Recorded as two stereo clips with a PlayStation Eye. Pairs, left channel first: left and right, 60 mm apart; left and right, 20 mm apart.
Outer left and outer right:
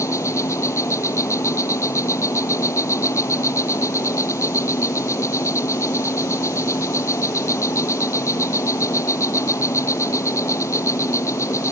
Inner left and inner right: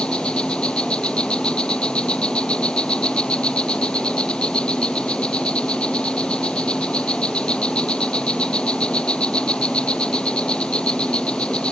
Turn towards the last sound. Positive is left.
turn(degrees=55)  # may be behind; listen again after turning